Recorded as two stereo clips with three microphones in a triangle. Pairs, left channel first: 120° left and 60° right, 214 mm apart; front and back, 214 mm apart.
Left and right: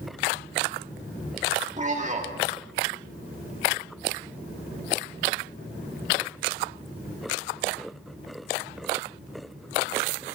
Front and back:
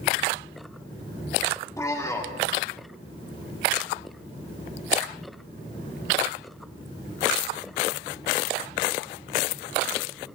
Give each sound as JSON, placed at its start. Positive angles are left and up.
{"t": 1.8, "sound": "a man speaking", "azimuth_deg": -65, "distance_m": 1.3}